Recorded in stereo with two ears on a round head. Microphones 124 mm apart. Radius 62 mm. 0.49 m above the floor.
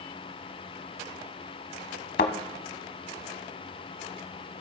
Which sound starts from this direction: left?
A thud, at 2.2 s.